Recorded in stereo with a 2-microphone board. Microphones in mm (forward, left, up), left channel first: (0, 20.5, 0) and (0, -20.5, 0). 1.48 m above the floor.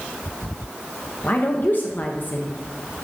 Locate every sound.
1.2 s a woman speaking: 50° left (ahead or behind), 0.8 m